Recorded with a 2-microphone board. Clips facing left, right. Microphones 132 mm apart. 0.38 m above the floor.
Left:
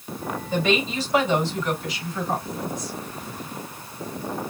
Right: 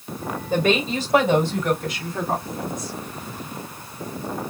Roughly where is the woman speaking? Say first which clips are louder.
Right 3 dB; right.